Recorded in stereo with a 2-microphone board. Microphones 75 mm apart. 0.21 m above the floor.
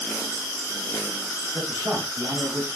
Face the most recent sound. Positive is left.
turn(degrees=-25)  # may be behind; listen again after turning